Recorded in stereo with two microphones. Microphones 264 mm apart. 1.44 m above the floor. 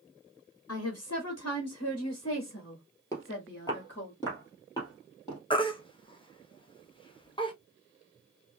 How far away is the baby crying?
About 0.7 m.